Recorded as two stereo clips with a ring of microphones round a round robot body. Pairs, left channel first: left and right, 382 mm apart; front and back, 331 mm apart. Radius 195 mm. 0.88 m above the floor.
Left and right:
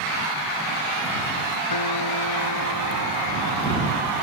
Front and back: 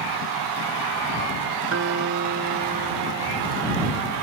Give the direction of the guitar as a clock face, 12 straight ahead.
8 o'clock.